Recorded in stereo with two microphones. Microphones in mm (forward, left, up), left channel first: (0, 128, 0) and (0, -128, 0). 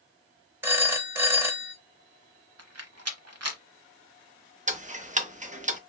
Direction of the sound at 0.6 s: 10° right (ahead or behind).